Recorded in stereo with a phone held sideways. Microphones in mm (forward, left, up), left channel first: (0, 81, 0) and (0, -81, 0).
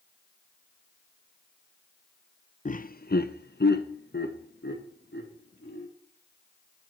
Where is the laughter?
45° left (ahead or behind), 0.5 m; by 5.9 s 80° left, 3 m.